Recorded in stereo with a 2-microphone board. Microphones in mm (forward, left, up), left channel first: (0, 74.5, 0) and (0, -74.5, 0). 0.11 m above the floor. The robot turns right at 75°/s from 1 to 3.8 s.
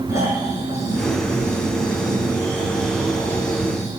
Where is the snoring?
155° right, 6.5 m; by 3.9 s 55° left, 6.5 m.